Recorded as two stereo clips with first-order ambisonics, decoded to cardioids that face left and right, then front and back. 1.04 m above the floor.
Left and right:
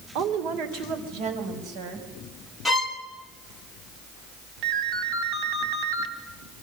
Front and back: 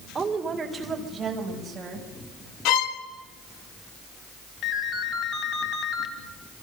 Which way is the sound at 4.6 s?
45° right.